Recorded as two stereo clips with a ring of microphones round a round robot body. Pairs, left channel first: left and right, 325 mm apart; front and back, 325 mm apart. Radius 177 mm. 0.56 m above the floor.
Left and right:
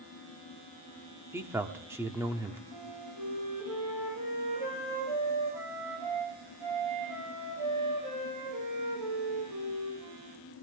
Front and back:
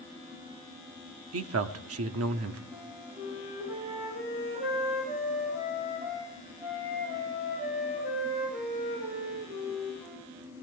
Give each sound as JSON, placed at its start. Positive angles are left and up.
{"t": 1.3, "sound": "a man speaking", "azimuth_deg": -170, "distance_m": 1.0}
{"t": 2.7, "sound": "a flute", "azimuth_deg": -90, "distance_m": 10.0}